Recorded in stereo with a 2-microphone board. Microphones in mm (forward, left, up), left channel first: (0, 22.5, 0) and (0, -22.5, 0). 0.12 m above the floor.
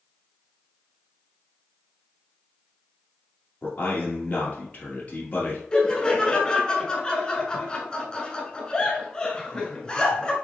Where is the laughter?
20° left (ahead or behind), 1.1 m.